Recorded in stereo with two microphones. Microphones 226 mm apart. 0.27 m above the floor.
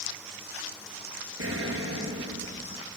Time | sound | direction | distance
1.4 | an explosion | 75° right (ahead or behind) | 4 m